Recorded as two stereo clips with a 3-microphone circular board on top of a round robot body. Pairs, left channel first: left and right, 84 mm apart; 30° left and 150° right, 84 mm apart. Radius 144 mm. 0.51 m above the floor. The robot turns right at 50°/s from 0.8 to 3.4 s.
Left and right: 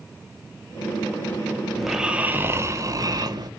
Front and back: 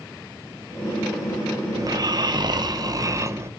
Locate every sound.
1.8 s snoring: straight behind, 1.2 m; by 3.5 s 100° right, 1.2 m